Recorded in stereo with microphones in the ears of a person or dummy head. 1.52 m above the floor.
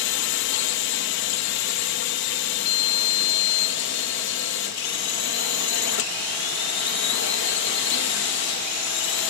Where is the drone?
65° left (ahead or behind).